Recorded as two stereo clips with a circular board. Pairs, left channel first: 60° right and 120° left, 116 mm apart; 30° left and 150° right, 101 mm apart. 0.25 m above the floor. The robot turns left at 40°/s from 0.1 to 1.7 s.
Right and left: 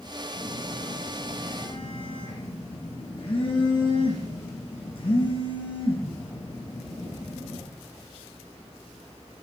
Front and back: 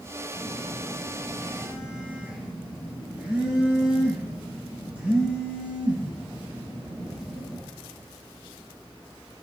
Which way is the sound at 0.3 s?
20° right.